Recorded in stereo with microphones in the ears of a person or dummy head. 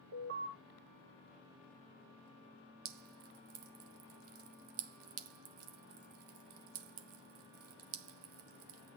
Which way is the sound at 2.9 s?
70° right (ahead or behind).